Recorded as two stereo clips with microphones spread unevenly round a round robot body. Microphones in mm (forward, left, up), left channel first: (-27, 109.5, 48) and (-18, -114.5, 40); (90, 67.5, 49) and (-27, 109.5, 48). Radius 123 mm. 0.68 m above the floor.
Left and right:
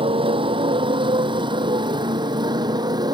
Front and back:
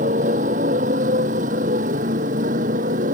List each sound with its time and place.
0.0 s a motorcycle: 155° right; by 3.1 s 160° right